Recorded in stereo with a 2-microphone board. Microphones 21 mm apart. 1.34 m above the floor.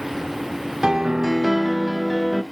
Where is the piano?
25° right (ahead or behind), 0.7 m.